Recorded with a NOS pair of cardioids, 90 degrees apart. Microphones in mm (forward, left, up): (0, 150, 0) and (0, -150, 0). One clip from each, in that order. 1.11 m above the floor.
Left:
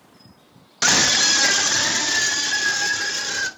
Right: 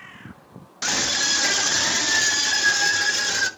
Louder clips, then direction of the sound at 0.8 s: Left 6 dB; 50° left.